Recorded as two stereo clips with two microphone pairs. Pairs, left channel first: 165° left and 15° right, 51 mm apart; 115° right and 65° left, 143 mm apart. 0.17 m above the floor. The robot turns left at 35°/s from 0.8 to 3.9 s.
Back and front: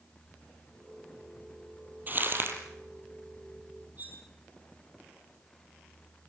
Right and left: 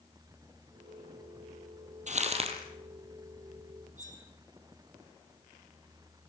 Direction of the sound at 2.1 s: 35° left.